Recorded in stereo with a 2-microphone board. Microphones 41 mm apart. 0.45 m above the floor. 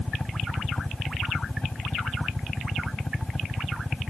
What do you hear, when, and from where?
0.0 s a helicopter: 15° left (ahead or behind); by 4.1 s 20° left (ahead or behind)